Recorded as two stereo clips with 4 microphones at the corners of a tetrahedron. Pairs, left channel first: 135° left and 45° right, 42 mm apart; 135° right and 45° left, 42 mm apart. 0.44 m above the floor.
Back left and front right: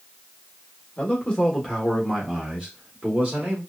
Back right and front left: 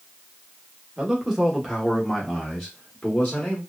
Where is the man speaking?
110° left, 1.0 m; by 3.6 s 70° right, 1.2 m.